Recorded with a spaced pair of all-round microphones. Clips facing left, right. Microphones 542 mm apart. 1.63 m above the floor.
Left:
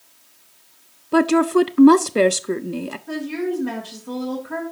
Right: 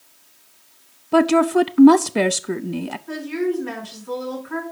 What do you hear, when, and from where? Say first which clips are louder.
1.1 s a woman speaking: even; 10° right (ahead or behind), 0.6 m
3.1 s a woman speaking: right 1 dB; 55° left (ahead or behind), 4.5 m